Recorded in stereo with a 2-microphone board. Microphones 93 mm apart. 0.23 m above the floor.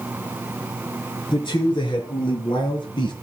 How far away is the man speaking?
About 4 m.